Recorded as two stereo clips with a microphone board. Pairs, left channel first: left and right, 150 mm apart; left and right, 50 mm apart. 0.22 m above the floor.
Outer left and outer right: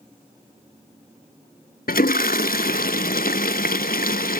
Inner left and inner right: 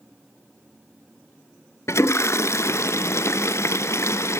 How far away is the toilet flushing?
About 0.7 m.